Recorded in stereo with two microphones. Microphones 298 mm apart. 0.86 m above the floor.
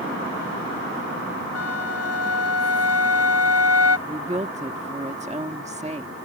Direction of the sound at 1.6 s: 55° left (ahead or behind).